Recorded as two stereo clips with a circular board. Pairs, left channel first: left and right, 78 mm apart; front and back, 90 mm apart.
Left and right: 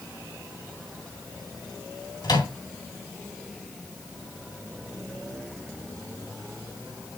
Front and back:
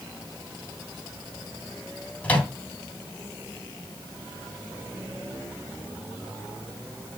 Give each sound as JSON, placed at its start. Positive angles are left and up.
{"t": 2.2, "sound": "a microwave", "azimuth_deg": 70, "distance_m": 2.5}